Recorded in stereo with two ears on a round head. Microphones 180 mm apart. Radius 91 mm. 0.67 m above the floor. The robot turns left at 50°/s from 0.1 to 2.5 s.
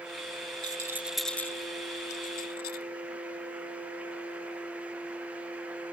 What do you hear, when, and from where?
0.6 s a rattle: 25° right (ahead or behind); by 2.9 s 50° left (ahead or behind)